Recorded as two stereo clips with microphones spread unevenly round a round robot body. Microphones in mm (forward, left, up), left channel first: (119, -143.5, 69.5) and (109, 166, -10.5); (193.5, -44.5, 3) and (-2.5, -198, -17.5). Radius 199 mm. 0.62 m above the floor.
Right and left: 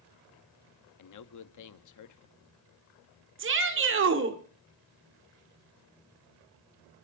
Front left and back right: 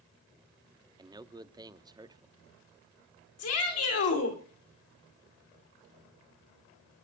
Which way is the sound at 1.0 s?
80° right.